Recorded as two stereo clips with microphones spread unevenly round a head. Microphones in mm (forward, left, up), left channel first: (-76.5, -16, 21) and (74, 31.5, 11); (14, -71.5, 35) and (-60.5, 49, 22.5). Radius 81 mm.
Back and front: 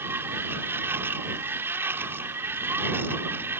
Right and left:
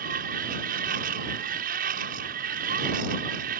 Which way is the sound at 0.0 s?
95° left.